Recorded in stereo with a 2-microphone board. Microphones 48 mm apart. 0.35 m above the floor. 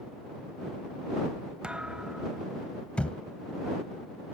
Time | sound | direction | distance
1.6 | a thud | 20° right (ahead or behind) | ?
3.0 | a thud | 25° left (ahead or behind) | ?